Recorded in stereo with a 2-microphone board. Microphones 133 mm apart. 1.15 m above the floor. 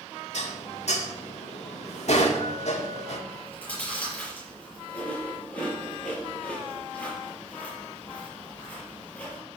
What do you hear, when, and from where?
0.3 s dishes clattering: 60° left (ahead or behind), 1.9 m
3.3 s chewing: 10° left (ahead or behind), 7 m